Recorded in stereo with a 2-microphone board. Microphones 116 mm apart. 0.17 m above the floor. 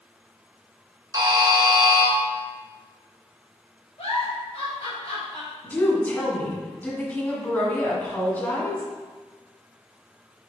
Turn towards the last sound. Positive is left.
turn(degrees=15)  # may be behind; listen again after turning